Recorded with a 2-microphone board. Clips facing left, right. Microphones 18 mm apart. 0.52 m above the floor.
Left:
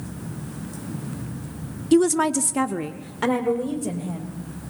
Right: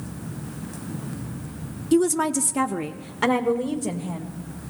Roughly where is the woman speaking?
Left.